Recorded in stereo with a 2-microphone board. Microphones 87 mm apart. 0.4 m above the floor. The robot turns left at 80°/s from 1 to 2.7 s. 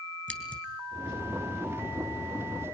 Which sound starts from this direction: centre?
Scissors, at 0.3 s.